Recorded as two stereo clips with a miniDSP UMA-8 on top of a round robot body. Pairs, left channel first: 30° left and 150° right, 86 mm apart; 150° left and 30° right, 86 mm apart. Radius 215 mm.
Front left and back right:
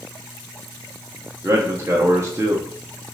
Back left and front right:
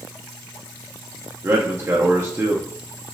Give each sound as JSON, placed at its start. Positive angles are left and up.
{"t": 1.4, "sound": "a man speaking", "azimuth_deg": -90, "distance_m": 0.6}